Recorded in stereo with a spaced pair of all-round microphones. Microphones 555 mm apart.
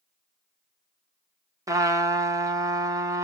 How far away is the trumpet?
About 0.9 m.